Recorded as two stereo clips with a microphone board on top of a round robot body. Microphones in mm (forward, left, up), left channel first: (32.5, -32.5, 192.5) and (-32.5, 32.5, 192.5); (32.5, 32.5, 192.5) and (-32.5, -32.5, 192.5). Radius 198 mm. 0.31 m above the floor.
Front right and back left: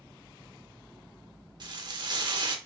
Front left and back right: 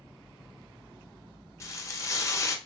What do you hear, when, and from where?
1.6 s frying: 100° left, 0.8 m